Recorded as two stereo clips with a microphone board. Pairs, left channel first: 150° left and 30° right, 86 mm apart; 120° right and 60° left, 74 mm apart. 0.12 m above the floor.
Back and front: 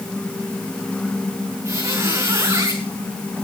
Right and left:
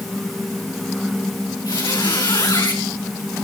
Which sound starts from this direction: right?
A squeak, at 1.6 s.